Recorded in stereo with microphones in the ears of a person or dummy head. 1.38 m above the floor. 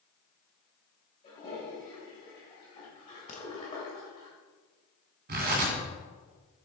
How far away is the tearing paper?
About 2.5 m.